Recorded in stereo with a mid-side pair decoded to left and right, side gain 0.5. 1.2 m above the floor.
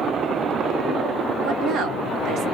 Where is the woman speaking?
65° right, 1.3 m.